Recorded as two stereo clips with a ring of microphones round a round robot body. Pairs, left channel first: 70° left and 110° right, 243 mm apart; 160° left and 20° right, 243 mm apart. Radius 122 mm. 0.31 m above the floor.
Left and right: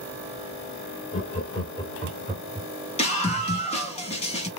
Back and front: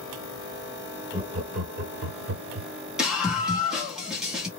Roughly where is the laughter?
Ahead left.